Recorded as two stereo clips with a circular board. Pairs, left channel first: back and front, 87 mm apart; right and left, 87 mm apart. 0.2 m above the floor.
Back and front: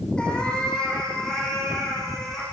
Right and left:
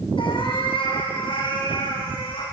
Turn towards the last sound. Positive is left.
turn(degrees=-95)